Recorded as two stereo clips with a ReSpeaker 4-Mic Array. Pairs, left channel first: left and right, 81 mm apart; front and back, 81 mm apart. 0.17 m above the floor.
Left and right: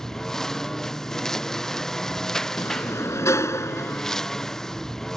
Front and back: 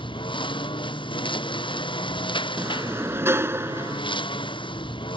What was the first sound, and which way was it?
A lawn mower, 5° left.